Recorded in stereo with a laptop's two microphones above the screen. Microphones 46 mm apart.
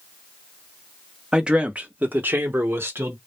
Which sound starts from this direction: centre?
A man speaking, at 1.3 s.